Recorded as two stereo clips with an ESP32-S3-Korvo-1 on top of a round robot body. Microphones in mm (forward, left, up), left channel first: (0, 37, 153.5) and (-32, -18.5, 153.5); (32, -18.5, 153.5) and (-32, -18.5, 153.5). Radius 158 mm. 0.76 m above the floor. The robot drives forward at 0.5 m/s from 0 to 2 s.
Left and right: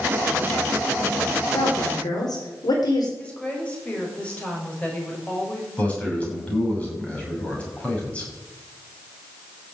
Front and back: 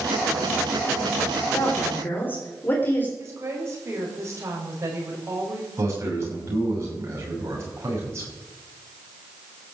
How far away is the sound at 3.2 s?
About 5.5 m.